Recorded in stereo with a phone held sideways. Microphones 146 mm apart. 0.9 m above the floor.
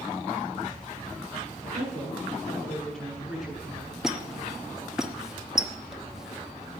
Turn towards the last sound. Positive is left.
turn(degrees=-5)  # may be behind; listen again after turning